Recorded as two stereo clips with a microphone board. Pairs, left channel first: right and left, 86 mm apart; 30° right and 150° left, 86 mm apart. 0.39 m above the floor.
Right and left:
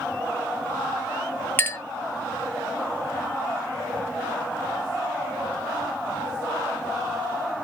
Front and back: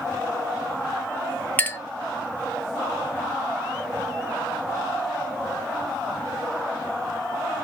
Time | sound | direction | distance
1.6 | a clink | 70° right | 0.6 m